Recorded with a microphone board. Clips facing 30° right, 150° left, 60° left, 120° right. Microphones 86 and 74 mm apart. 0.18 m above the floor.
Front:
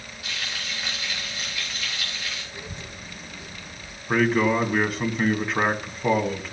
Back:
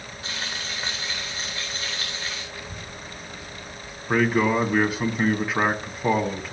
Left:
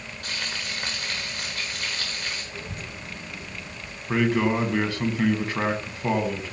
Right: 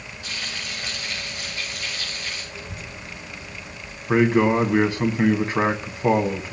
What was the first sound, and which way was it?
Frying, 90° left.